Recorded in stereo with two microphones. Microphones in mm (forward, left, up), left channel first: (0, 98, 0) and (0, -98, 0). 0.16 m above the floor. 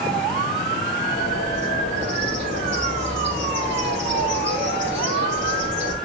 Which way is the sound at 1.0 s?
75° right (ahead or behind).